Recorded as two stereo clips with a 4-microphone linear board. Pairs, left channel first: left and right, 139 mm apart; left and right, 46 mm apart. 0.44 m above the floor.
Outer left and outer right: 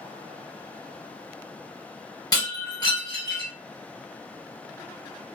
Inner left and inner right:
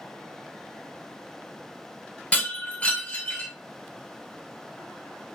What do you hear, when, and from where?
2.3 s breaking glass: 30° left (ahead or behind), 1.7 m